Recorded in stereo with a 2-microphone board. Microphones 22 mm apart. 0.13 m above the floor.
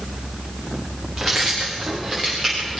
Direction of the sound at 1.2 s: 5° right (ahead or behind).